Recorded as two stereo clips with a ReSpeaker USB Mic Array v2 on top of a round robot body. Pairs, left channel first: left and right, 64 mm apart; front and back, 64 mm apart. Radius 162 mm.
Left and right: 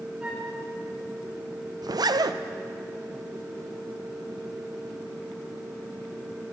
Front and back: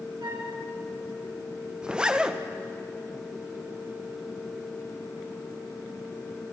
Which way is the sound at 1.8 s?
105° right.